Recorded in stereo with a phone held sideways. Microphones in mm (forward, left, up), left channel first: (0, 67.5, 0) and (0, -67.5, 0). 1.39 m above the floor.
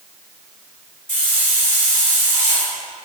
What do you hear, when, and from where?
1.1 s a hiss: 65° left (ahead or behind), 2.5 m